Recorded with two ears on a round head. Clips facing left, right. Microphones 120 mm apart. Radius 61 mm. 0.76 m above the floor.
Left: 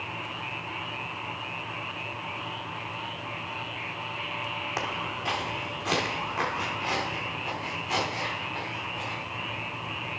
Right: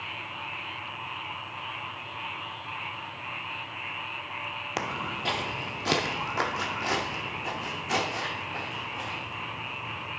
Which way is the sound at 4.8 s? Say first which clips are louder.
Right 2 dB; 30° right (ahead or behind).